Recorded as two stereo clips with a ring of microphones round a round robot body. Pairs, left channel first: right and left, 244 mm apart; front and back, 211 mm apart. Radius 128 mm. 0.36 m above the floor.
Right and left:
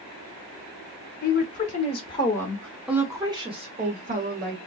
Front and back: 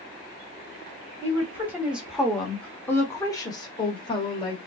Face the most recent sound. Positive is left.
turn(degrees=55)